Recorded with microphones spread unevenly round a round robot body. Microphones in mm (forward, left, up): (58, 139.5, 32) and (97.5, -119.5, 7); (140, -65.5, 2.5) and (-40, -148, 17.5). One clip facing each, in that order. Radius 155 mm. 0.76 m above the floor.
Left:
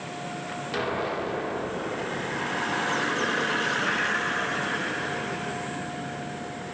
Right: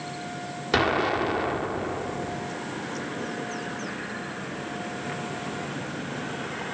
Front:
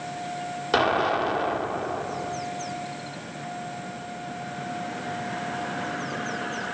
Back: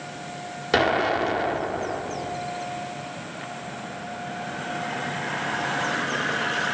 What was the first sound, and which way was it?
An explosion, 80° right.